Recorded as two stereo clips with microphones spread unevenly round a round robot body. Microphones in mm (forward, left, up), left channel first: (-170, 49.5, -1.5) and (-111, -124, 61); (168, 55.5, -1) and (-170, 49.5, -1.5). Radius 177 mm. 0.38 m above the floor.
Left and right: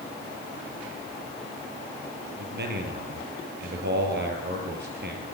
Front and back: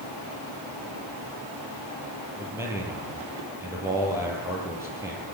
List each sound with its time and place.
2.4 s a man speaking: 95° right, 8.5 m